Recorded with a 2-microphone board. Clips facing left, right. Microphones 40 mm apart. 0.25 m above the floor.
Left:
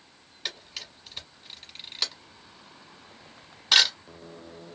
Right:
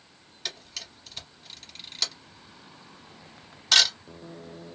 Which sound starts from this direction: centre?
A camera shutter, at 0.5 s.